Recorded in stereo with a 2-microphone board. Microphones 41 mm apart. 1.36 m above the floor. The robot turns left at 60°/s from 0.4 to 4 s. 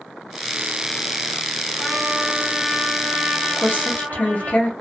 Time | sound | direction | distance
1.8 | a trumpet | 5° left | 1.6 m
3.6 | a woman speaking | 55° left (ahead or behind) | 0.6 m